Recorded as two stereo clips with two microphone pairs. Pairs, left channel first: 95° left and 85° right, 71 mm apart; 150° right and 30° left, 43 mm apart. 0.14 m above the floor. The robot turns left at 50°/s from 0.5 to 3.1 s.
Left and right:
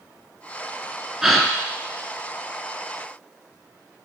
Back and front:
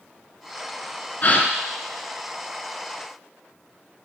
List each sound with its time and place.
1.2 s a gasp: 165° right, 0.9 m; by 1.5 s straight behind, 0.9 m